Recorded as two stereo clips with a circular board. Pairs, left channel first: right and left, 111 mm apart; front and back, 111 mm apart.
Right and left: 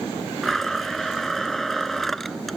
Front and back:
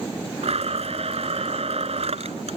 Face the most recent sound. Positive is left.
turn(degrees=180)